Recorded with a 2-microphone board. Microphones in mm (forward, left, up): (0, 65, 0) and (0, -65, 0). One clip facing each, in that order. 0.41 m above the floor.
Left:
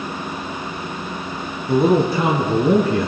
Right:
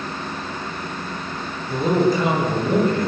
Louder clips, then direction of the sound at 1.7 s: Left 3 dB; 70° left (ahead or behind).